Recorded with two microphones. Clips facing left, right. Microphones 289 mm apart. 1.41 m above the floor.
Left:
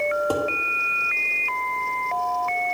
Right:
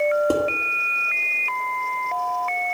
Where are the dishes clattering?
25° right (ahead or behind), 1.6 m.